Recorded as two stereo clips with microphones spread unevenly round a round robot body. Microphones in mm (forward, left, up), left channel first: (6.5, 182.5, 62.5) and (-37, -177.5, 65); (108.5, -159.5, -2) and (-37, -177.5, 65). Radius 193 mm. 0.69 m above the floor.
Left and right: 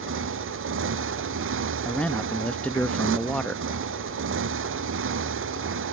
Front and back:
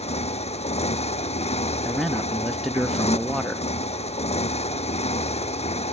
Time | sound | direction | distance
0.0 | a motorcycle | 40° right | ?
1.9 | a man speaking | straight ahead | ?